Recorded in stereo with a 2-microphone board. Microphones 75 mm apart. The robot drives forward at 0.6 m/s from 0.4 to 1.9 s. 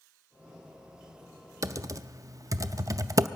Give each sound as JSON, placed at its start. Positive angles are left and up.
{"t": 1.6, "sound": "typing on a keyboard", "side_deg": -45, "distance_m": 0.5}